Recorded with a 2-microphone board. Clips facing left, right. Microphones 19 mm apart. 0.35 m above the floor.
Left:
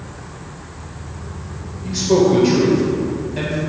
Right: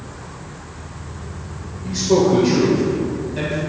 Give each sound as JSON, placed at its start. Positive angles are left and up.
{"t": 1.8, "sound": "a man speaking", "side_deg": 15, "distance_m": 1.1}